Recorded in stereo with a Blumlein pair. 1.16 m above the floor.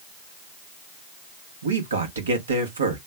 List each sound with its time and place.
1.6 s a man speaking: 70° right, 1.2 m